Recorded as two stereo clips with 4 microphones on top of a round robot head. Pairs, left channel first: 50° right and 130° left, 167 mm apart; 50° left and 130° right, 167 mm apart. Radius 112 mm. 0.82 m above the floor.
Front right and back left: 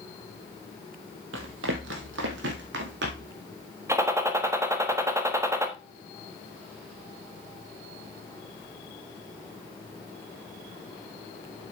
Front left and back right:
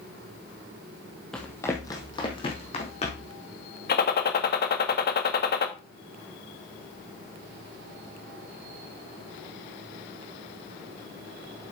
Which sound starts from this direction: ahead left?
A gunshot, at 3.9 s.